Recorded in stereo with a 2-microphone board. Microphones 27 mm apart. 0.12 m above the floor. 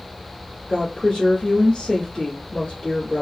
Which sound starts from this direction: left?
A woman speaking, at 0.7 s.